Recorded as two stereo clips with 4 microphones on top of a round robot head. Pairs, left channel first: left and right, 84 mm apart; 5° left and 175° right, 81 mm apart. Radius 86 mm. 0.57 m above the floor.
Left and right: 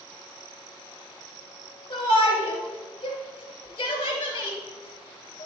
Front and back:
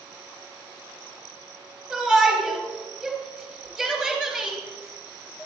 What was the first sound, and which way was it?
A shout, 105° left.